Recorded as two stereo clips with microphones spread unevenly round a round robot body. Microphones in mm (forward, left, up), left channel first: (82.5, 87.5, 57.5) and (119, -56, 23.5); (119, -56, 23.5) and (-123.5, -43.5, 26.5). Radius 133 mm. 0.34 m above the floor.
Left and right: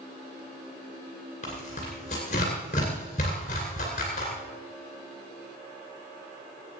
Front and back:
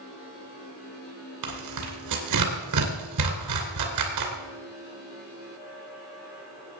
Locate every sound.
1.4 s tearing paper: 165° left, 2.5 m